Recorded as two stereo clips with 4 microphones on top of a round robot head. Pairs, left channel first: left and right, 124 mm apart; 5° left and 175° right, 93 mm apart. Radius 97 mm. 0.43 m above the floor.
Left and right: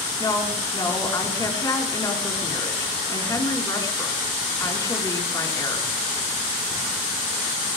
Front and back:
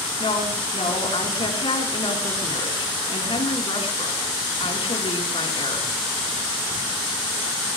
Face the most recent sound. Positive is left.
turn(degrees=25)